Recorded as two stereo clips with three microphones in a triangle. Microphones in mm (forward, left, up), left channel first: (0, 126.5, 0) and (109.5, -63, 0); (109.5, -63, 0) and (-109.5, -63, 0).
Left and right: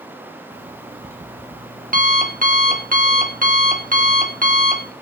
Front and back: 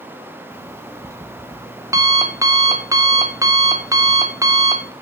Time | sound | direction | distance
0.5 | an alarm clock | 105° right | 1.4 m